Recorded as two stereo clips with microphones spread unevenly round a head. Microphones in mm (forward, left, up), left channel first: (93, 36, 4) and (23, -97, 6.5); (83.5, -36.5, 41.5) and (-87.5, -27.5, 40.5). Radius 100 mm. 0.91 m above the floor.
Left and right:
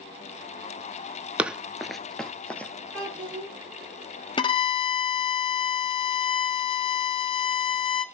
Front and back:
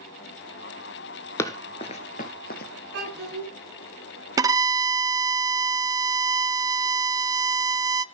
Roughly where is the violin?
Behind left.